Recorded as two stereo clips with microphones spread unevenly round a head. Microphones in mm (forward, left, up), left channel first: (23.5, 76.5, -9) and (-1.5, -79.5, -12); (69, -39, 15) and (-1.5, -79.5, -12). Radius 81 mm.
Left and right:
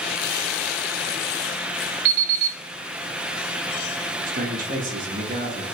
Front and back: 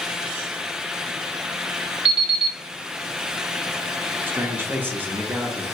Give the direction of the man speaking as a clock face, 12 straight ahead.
4 o'clock.